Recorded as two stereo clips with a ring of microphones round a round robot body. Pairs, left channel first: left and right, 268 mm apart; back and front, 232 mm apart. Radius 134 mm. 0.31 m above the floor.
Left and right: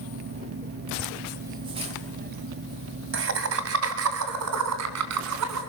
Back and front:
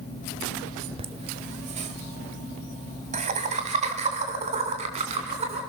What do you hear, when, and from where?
1.0 s laughter: 5° left, 1.1 m; by 5.6 s 65° right, 3 m